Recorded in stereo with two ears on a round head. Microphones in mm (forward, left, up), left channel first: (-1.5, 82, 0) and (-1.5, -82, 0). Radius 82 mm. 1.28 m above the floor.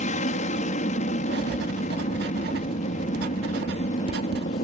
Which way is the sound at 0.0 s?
40° left (ahead or behind).